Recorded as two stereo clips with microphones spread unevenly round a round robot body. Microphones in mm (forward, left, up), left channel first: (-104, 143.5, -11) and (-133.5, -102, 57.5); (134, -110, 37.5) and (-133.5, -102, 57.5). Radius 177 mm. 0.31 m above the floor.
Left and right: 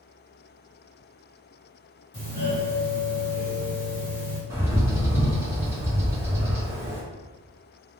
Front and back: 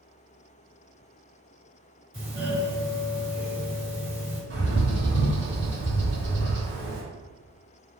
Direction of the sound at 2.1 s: 140° left.